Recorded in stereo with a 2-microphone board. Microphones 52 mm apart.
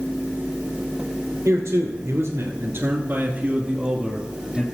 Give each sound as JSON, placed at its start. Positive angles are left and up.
{"t": 1.4, "sound": "a man speaking", "side_deg": -60, "distance_m": 2.5}